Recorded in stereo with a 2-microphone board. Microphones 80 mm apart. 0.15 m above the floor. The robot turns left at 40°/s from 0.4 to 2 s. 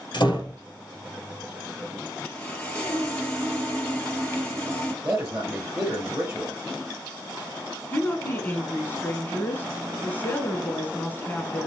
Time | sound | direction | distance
0.1 | a door slam | 65° left (ahead or behind) | 1.8 m
2.2 | sawing | 15° left (ahead or behind) | 2.5 m
5.0 | a man speaking | 15° right (ahead or behind) | 2.5 m
7.9 | a woman speaking | 25° left (ahead or behind) | 1.3 m